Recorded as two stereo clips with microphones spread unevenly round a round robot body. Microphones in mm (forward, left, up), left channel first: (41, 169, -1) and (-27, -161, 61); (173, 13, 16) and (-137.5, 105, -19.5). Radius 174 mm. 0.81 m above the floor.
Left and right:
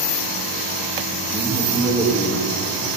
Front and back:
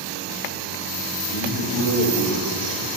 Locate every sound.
1.2 s a man speaking: 25° right, 1.2 m; by 2.9 s 10° left, 1.7 m